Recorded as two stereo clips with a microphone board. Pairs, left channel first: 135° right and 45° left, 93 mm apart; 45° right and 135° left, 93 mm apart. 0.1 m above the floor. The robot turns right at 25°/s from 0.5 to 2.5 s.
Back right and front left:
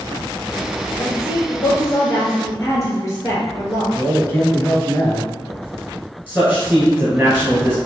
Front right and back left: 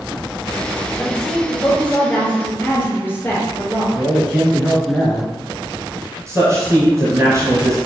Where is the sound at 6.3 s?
110° left, 1.4 m.